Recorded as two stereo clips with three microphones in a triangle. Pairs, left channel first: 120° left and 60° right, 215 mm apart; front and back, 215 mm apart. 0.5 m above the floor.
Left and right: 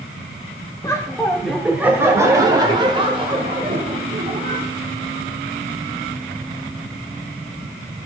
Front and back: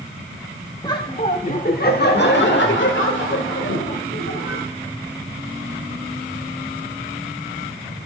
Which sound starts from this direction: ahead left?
Laughter, at 0.8 s.